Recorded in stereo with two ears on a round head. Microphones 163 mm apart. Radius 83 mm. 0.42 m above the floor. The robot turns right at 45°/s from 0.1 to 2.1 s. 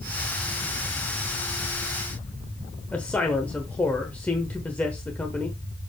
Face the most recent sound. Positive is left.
turn(degrees=10)  # may be behind; listen again after turning